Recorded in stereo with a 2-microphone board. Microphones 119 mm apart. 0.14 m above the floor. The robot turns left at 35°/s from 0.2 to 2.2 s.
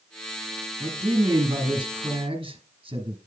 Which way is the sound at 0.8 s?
20° right.